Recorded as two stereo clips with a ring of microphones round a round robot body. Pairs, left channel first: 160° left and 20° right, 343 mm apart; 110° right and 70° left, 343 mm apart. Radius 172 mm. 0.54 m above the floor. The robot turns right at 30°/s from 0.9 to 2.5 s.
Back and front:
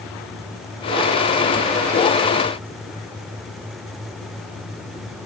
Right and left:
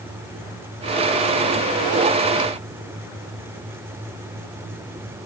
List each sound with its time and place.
Only background noise.